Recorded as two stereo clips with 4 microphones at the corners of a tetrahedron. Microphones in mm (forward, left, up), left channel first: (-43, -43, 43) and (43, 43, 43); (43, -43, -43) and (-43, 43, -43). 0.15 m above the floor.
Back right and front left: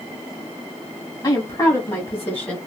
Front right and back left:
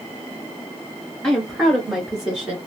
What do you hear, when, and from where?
1.2 s a woman speaking: 120° right, 1.5 m; by 2.6 s straight behind, 1.4 m